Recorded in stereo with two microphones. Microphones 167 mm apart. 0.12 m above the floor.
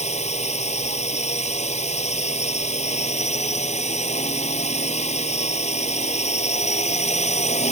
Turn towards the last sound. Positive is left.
turn(degrees=45)  # may be behind; listen again after turning